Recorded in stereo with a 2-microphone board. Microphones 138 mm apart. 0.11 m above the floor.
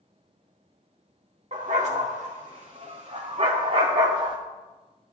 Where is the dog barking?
60° right (ahead or behind), 3.5 m; by 4.4 s 35° right (ahead or behind), 2.5 m.